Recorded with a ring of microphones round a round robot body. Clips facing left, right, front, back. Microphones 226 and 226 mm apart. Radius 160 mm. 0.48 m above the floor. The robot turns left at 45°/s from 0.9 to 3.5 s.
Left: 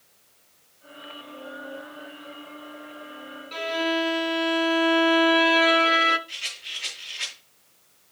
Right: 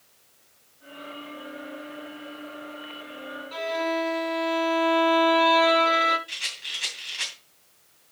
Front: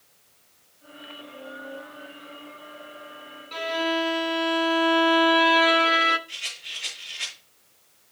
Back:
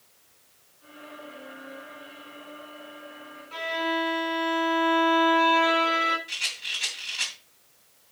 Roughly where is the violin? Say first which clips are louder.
Left 2 dB, front 3 dB; ahead left.